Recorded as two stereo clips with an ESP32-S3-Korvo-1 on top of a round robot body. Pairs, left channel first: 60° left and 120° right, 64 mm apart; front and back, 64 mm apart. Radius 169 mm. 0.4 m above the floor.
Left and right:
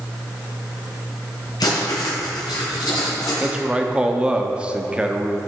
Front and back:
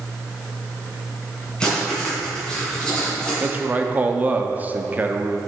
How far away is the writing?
About 2 m.